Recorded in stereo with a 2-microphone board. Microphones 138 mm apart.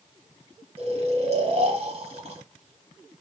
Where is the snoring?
50° right (ahead or behind), 1.0 m.